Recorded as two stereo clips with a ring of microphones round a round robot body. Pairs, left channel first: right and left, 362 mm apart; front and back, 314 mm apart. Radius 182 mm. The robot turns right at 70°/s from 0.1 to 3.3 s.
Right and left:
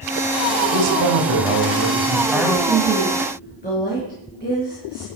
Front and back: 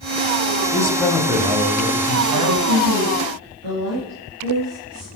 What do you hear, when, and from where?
0.7 s a man speaking: 60° left, 3 m; by 2.6 s 170° right, 3 m
2.7 s a woman speaking: 160° left, 5.5 m; by 5.1 s 160° right, 5.5 m